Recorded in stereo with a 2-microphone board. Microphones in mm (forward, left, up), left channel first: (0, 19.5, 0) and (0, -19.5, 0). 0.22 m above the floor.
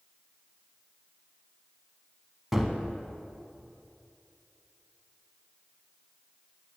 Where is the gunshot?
5° right (ahead or behind), 0.7 m.